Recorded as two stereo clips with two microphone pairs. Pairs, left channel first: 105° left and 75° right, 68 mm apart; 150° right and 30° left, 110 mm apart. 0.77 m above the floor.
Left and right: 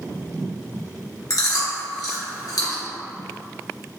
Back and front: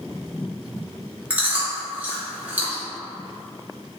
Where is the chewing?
105° left, 1.7 m.